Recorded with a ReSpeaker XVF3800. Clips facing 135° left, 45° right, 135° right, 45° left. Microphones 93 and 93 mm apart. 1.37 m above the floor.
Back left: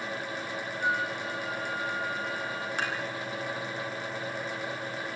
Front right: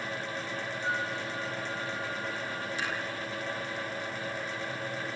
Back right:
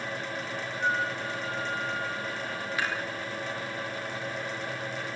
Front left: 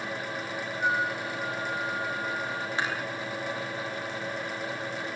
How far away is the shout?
I don't hear a shout.